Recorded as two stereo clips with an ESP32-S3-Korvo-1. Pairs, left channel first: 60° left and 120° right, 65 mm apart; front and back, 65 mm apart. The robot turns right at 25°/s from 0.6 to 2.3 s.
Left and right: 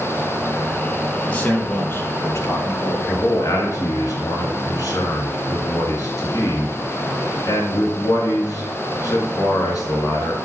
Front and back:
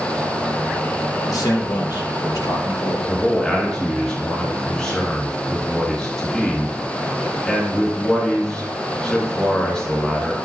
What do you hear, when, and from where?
1.3 s a man speaking: 10° right, 2.0 m; by 3.0 s 15° left, 2.0 m
3.1 s a man speaking: 70° left, 2.5 m